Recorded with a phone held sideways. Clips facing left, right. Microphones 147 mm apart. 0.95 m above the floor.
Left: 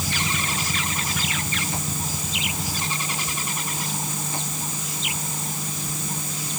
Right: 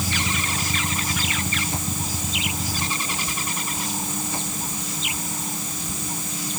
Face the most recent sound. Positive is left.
No sound to turn to.